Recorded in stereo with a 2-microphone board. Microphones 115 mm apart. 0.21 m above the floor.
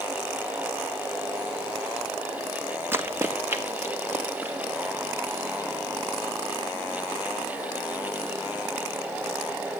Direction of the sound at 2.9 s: 20° right (ahead or behind).